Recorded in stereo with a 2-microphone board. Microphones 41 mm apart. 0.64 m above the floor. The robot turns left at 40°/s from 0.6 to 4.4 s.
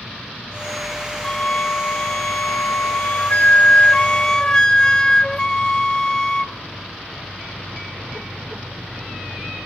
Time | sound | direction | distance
1.2 | a flute | 150° left | 0.9 m